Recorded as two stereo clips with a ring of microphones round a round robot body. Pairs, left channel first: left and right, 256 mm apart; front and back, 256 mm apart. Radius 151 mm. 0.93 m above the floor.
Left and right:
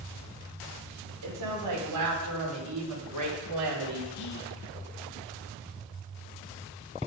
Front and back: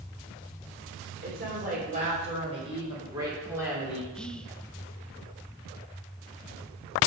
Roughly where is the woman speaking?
Behind right.